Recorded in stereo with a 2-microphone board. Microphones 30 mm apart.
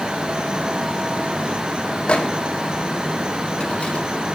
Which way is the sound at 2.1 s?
35° left (ahead or behind).